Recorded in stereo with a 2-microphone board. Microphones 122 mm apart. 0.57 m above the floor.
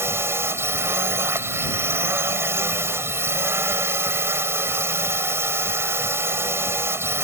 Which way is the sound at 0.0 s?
20° right (ahead or behind).